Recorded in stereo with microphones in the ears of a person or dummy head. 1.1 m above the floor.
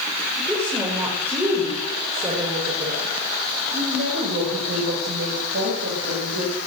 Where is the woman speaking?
Centre (ahead or behind), 4.5 m; by 6.6 s 65° right (ahead or behind), 5.5 m.